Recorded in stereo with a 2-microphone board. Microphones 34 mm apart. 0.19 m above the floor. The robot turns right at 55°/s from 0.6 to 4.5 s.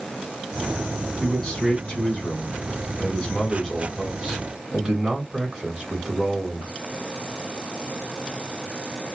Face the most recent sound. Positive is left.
turn(degrees=-145)